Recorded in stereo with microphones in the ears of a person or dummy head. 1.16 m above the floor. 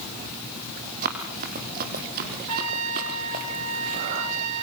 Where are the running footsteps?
45° right (ahead or behind), 3.5 m.